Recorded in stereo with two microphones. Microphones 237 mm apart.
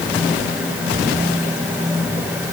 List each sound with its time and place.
Only background noise.